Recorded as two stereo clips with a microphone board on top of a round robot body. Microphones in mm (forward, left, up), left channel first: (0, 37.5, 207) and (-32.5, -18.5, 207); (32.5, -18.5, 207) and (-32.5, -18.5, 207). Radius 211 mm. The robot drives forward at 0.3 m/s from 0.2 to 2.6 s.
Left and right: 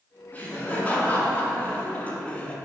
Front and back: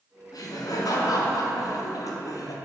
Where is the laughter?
5° right, 2.0 m; by 2.5 s 10° right, 1.4 m.